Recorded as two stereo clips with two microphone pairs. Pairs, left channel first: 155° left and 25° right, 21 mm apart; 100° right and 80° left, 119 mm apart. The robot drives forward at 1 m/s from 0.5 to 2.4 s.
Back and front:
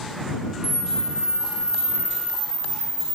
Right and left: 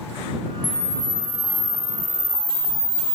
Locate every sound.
0.6 s a camera shutter: 135° right, 0.6 m; by 3.1 s 170° right, 2 m